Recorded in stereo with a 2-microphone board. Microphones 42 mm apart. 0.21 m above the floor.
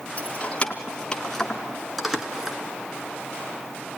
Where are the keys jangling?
30° left (ahead or behind), 1.7 m; by 2.6 s 10° right (ahead or behind), 1.8 m.